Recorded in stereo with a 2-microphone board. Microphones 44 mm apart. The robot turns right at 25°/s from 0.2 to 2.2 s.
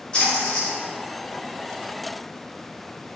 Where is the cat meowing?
No cat meowing in this recording.